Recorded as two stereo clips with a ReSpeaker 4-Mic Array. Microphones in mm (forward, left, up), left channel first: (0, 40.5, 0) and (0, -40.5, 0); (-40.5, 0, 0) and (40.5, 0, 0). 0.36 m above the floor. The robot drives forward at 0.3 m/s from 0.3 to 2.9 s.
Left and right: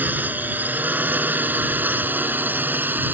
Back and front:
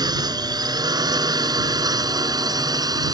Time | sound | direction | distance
0.0 | a drone | 25° right | ?